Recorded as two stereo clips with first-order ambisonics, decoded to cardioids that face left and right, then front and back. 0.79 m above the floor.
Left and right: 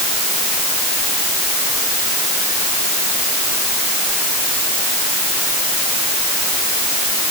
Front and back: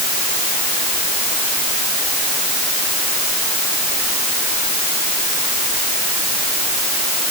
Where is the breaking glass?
No breaking glass in this recording.